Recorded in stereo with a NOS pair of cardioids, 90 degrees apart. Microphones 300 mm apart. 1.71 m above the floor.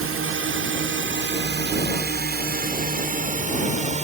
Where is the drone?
45° right; by 4.0 s 25° right.